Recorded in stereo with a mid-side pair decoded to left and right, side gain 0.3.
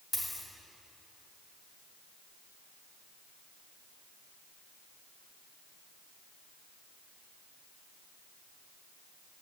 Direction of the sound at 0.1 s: 40° left.